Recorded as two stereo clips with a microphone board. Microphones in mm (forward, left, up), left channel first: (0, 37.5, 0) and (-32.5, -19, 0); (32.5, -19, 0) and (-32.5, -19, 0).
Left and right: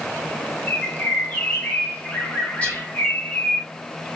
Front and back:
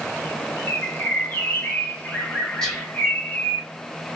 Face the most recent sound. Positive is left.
turn(degrees=65)